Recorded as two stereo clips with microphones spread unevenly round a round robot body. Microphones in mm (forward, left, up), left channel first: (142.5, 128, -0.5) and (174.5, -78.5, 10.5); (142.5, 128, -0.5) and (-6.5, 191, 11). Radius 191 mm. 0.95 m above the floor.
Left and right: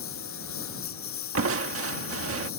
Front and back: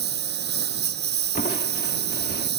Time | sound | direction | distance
0.0 | a lawn mower | 155° left | ?
1.4 | crushing | 80° right | ?